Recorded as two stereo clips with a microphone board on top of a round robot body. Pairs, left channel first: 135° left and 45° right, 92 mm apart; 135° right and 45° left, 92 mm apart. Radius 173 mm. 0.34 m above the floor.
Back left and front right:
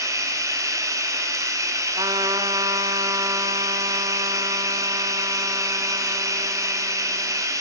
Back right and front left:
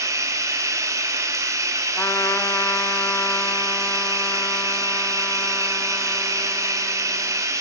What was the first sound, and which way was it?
Running water, straight ahead.